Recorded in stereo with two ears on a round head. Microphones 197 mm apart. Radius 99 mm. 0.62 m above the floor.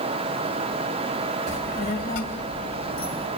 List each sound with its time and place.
1.5 s a child speaking: 50° left (ahead or behind), 1.6 m; by 3.3 s 25° left (ahead or behind), 2.5 m